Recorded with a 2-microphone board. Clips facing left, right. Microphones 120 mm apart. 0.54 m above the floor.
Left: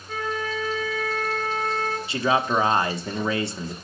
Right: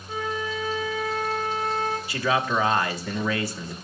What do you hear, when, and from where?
0.1 s a flute: 15° right (ahead or behind), 1.6 m
2.1 s a man speaking: 25° left (ahead or behind), 1.1 m